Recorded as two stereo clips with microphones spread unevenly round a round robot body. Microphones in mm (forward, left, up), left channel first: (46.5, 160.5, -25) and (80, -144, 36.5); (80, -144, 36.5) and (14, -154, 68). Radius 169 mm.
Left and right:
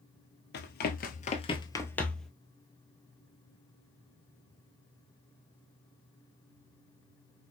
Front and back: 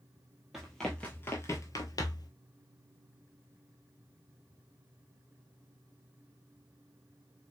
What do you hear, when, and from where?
0.5 s running footsteps: 150° left, 0.7 m; by 2.3 s 5° right, 0.8 m